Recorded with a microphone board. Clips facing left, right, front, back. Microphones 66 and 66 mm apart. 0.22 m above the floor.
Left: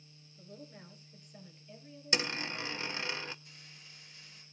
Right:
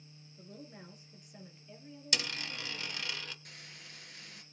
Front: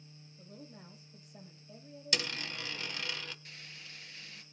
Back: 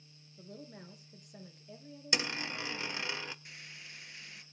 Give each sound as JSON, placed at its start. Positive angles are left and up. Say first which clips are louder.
{"t": 0.4, "sound": "a woman speaking", "louder": "even, back 3 dB", "azimuth_deg": -165, "distance_m": 3.5}
{"t": 2.1, "sound": "a dropped coin", "louder": "left 4 dB, back 2 dB", "azimuth_deg": 130, "distance_m": 0.5}
{"t": 3.5, "sound": "frying", "louder": "right 4 dB, back 1 dB", "azimuth_deg": -110, "distance_m": 2.5}